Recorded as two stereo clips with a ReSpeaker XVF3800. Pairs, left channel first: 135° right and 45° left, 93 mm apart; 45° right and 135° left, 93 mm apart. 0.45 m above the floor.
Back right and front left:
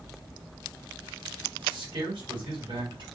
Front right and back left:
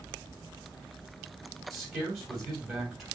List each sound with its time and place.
1.7 s a man speaking: 45° left, 3 m